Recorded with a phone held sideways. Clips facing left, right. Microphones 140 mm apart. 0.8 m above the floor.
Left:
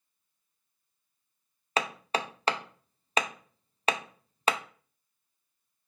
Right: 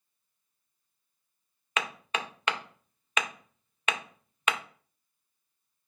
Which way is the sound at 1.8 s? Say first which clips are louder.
Left 4 dB; 35° left (ahead or behind).